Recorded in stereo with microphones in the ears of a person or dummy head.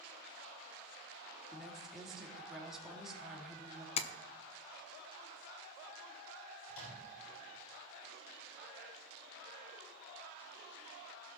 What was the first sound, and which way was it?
A woman speaking, centre (ahead or behind).